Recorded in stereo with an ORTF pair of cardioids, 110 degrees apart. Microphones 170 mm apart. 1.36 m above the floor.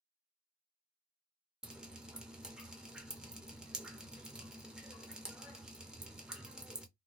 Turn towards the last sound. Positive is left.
turn(degrees=-5)